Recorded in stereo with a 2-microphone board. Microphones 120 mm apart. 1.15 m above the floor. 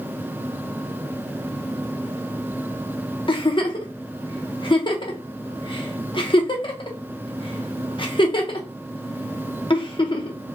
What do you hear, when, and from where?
3.3 s a giggle: 45° left (ahead or behind), 0.6 m